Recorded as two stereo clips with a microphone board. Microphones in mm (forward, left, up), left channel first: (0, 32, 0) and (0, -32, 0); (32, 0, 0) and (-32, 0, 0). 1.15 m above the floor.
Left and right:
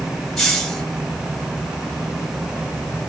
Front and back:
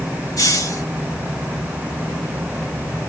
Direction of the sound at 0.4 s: 5° left.